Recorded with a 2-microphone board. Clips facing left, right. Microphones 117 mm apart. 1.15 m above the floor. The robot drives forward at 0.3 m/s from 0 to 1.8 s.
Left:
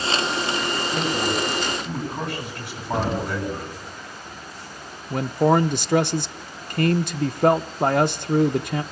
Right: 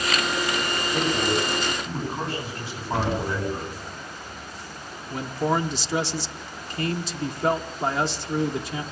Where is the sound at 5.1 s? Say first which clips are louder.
Left 6 dB; 60° left (ahead or behind), 0.8 m.